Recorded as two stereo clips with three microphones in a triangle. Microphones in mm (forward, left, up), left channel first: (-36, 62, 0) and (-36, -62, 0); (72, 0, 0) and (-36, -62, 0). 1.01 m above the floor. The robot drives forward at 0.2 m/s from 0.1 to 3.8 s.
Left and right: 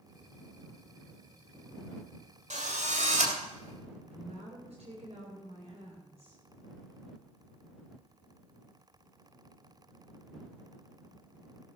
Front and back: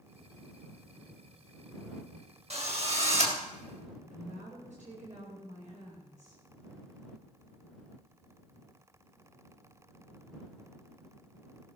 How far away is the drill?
About 2.5 m.